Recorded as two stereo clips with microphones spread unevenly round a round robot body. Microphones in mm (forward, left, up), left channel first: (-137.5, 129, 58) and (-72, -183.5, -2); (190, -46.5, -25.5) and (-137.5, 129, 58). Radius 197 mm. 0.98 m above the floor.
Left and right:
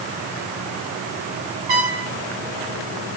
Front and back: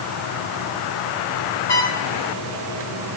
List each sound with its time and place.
1.7 s a trumpet: 55° right, 3.5 m